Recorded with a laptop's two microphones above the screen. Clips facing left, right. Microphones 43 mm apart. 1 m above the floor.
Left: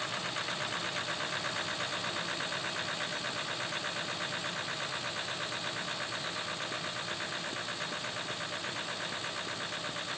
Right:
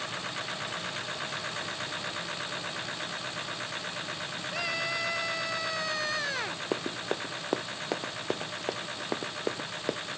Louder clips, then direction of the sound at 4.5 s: Right 5 dB; 90° right.